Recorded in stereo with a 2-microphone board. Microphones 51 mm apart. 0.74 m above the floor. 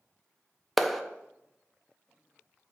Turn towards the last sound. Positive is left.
turn(degrees=0)  # may be behind; listen again after turning